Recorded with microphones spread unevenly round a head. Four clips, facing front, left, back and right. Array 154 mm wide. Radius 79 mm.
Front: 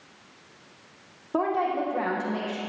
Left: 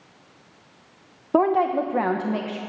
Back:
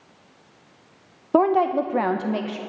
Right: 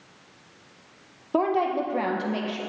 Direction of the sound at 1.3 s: 155° left.